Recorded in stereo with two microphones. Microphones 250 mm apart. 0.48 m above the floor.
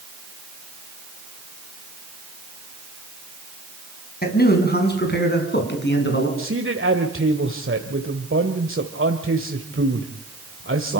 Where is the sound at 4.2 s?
40° left (ahead or behind), 4.5 m; by 6.3 s 50° left (ahead or behind), 6 m.